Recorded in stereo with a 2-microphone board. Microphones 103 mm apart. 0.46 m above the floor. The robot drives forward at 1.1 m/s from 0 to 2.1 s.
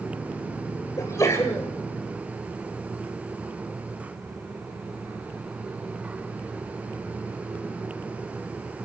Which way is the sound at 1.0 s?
35° left (ahead or behind).